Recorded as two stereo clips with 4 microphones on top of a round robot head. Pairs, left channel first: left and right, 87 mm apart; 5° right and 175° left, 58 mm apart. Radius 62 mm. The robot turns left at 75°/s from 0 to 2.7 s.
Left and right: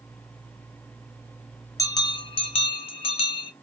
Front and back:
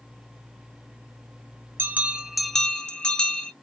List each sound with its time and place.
1.8 s a bell: 135° left, 0.6 m; by 3.5 s 65° left, 0.6 m